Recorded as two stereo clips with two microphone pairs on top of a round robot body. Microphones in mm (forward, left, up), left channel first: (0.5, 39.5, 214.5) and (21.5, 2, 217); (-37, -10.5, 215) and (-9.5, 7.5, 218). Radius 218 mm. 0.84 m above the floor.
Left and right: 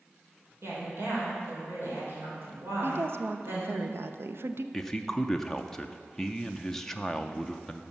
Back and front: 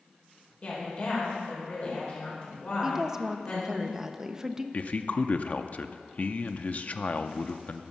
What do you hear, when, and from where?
0.6 s a woman speaking: 100° right, 4 m
2.8 s a woman speaking: 45° right, 0.8 m
4.7 s a man speaking: 165° right, 0.7 m